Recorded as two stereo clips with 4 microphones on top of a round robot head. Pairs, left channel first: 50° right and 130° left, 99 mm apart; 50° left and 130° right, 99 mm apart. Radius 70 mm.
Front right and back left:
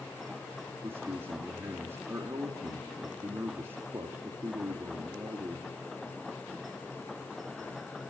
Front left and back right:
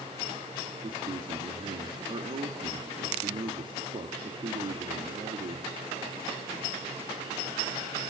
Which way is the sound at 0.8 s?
160° right.